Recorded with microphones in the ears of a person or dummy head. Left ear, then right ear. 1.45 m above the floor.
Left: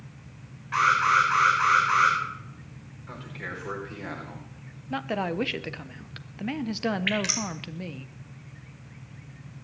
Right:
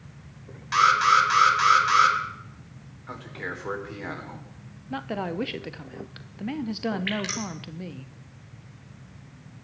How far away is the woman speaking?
About 0.8 m.